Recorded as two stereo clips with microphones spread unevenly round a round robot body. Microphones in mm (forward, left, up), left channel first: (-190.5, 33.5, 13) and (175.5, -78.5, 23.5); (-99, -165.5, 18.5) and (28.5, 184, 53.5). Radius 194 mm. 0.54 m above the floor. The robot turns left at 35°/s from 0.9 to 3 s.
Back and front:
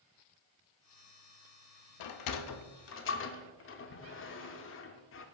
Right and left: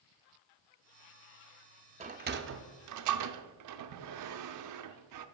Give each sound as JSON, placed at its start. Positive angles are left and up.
{"t": 2.0, "sound": "a sliding door", "azimuth_deg": 145, "distance_m": 0.5}